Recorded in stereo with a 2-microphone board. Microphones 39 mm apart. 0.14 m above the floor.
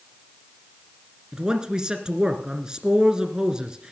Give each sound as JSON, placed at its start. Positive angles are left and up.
{"t": 1.3, "sound": "a man speaking", "side_deg": -20, "distance_m": 1.8}